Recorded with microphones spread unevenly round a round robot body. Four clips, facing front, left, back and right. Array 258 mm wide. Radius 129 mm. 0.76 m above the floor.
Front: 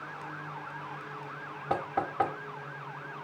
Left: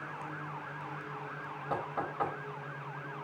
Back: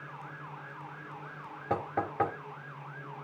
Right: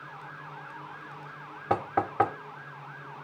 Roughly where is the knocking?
Right.